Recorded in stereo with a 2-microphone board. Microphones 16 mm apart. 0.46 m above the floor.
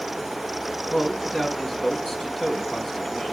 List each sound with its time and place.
0.9 s a man speaking: 45° left (ahead or behind), 4 m